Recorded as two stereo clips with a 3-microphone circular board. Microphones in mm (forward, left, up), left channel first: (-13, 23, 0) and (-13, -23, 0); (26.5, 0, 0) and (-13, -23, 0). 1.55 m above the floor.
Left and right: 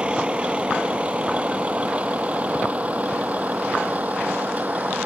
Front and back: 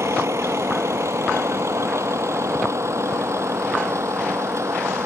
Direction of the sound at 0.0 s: 155° right.